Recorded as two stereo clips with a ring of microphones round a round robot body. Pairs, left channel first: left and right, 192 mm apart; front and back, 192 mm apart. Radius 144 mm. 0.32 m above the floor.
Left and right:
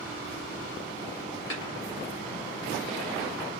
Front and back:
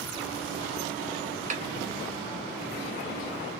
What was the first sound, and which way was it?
A snare drum, 130° left.